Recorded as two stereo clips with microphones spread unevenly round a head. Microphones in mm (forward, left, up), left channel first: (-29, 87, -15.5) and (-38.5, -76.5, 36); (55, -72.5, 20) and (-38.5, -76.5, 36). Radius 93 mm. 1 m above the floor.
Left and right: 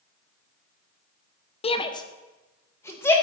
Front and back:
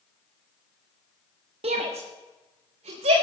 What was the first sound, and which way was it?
A shout, 140° left.